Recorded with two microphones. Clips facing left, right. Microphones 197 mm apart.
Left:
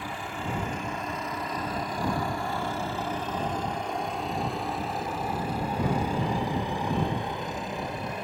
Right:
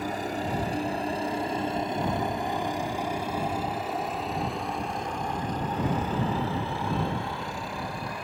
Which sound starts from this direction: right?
A helicopter, at 0.0 s.